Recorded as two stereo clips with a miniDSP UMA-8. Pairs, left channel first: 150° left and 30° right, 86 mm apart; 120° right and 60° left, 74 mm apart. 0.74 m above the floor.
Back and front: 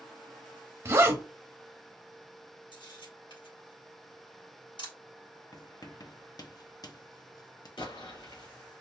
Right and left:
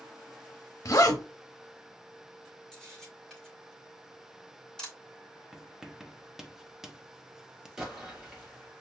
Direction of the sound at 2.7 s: 160° left.